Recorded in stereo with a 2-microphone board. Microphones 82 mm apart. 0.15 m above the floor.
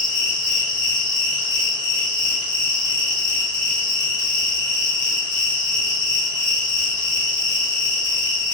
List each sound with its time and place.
0.0 s an insect: 55° left (ahead or behind), 1.9 m